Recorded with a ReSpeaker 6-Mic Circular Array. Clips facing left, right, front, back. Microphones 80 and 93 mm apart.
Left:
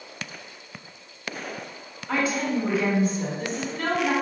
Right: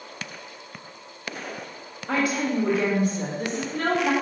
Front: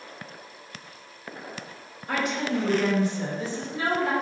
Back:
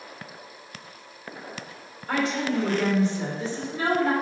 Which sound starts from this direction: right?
A woman speaking, at 2.1 s.